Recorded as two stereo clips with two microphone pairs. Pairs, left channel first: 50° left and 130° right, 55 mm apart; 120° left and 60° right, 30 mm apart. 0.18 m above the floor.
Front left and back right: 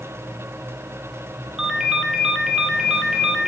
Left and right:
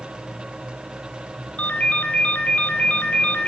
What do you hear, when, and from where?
1.6 s a ringtone: 150° left, 1.0 m